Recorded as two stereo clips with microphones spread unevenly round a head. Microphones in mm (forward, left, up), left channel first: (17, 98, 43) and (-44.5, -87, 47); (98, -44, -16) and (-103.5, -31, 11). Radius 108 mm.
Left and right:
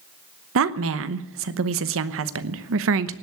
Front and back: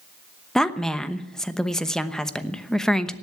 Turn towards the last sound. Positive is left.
turn(degrees=-90)